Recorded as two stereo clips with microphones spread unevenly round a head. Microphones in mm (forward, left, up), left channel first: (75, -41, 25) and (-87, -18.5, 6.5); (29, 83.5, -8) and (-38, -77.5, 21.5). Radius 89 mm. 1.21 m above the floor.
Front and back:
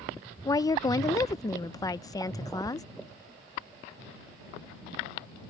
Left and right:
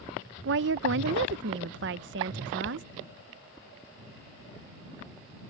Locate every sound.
0.5 s a woman speaking: 80° right